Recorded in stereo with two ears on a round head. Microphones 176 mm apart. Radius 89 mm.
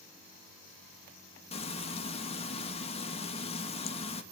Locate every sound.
1.5 s frying: 30° left (ahead or behind), 2 m